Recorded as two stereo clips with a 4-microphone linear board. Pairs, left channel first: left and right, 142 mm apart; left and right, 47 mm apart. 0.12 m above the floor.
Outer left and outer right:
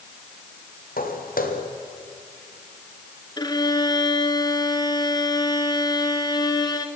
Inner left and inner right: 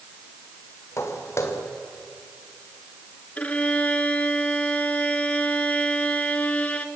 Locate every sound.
1.0 s footsteps: 85° left, 4 m
3.4 s a violin: 30° left (ahead or behind), 1.5 m